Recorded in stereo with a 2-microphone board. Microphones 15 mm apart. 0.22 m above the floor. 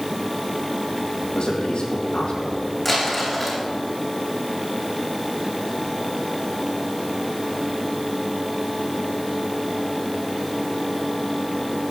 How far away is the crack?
No crack in this recording.